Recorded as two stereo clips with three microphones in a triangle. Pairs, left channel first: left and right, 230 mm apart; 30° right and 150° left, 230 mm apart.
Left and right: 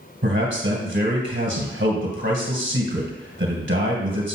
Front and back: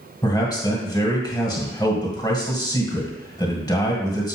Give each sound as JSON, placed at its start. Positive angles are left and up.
{"t": 0.2, "sound": "a man speaking", "azimuth_deg": -100, "distance_m": 2.0}